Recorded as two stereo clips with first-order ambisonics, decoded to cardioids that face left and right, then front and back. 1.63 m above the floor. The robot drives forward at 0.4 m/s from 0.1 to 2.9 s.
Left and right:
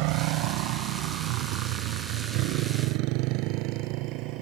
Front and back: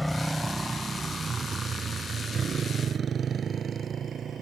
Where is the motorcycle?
85° right; by 4.4 s 115° right.